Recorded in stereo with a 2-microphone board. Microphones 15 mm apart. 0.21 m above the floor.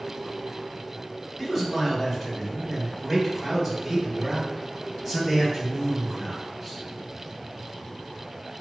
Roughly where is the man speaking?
Centre.